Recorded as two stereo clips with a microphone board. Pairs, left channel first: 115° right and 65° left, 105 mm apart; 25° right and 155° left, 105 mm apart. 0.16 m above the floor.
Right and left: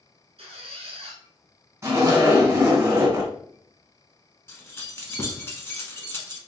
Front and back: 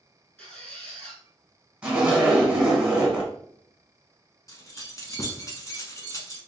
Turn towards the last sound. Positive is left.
turn(degrees=-60)